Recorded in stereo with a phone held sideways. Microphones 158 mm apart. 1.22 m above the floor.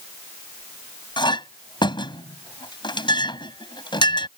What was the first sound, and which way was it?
A clink, 30° left (ahead or behind).